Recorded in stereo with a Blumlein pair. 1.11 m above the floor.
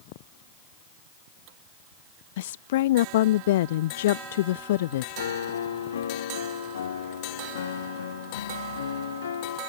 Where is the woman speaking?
55° left.